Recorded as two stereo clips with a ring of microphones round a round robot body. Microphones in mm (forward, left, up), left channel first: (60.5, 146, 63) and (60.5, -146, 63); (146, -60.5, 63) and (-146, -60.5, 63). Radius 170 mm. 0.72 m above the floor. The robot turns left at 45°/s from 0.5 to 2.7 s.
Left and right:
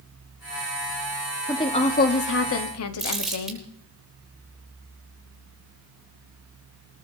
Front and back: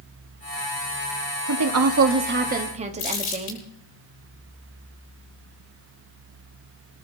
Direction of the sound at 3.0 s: Straight ahead.